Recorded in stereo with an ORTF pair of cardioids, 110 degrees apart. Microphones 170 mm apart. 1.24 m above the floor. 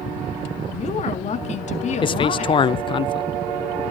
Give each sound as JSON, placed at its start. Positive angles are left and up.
{"t": 0.7, "sound": "a woman speaking", "azimuth_deg": 45, "distance_m": 2.0}
{"t": 2.0, "sound": "a man speaking", "azimuth_deg": 30, "distance_m": 0.5}